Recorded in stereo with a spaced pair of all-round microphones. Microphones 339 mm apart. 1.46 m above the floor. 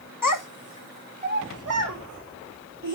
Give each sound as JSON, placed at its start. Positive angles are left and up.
{"t": 0.2, "sound": "a child speaking", "side_deg": 70, "distance_m": 1.0}